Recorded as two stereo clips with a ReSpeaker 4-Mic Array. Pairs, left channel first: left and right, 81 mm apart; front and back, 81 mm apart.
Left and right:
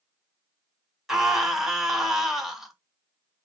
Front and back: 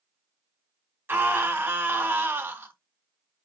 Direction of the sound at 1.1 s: 170° right.